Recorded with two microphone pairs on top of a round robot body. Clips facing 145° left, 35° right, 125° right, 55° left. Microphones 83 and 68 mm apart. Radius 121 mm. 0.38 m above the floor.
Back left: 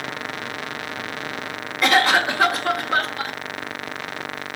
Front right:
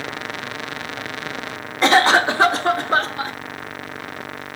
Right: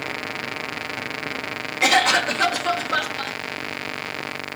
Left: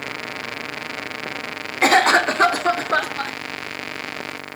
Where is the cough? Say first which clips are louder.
Front right 3 dB, left 4 dB; 25° left, 1.3 m.